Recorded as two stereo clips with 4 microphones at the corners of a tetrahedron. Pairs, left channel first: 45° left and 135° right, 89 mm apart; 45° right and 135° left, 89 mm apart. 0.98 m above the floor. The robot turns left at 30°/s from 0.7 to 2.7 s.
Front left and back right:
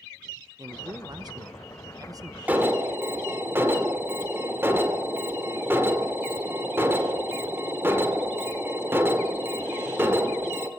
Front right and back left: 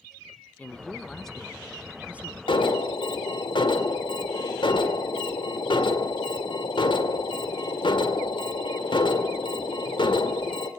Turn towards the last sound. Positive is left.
turn(degrees=-70)